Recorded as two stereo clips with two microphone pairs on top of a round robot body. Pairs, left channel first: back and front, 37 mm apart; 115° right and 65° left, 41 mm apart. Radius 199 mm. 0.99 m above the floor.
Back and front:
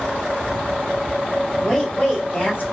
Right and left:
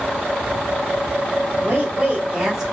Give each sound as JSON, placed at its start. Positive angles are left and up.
{"t": 1.6, "sound": "a woman speaking", "azimuth_deg": 110, "distance_m": 2.5}